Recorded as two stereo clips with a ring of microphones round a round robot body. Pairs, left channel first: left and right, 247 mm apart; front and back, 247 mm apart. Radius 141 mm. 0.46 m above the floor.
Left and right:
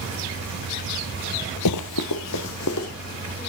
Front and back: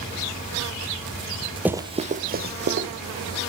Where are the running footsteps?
95° left, 0.8 m; by 2.9 s 135° left, 2.0 m.